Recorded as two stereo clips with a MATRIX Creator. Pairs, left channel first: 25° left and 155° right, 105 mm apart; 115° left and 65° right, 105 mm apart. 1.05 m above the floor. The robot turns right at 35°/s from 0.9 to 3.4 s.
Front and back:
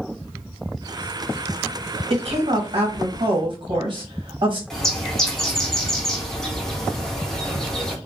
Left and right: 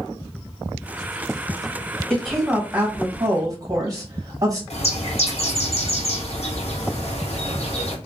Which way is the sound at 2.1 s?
165° right.